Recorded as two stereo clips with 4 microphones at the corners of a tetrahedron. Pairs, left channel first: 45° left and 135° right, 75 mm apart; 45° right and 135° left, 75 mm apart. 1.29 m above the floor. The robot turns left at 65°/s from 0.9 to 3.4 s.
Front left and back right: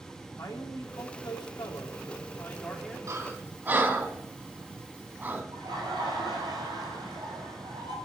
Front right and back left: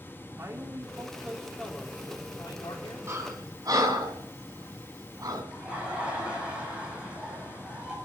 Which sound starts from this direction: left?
A man speaking, at 0.4 s.